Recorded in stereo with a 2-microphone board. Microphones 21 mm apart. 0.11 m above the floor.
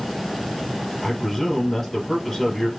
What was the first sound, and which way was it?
A man speaking, 15° left (ahead or behind).